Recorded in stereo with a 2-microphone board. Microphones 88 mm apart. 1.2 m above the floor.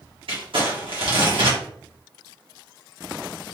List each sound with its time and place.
0.3 s crumpling: 80° right, 1.6 m